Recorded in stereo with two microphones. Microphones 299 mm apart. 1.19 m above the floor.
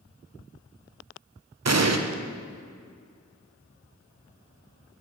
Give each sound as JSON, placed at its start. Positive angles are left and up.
{"t": 1.6, "sound": "an explosion", "side_deg": -60, "distance_m": 0.5}